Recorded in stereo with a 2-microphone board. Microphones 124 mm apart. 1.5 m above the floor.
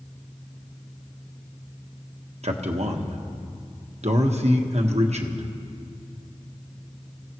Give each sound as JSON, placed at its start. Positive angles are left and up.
{"t": 2.4, "sound": "a man speaking", "side_deg": -60, "distance_m": 1.4}